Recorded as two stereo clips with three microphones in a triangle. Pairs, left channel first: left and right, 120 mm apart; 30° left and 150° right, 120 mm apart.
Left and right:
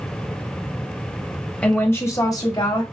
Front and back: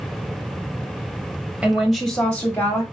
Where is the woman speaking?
150° left, 1.0 m; by 2.8 s 85° left, 1.2 m.